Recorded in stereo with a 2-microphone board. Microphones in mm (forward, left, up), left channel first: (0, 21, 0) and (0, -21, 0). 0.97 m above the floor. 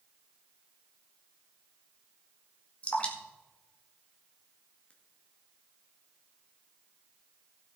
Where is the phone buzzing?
No phone buzzing in this recording.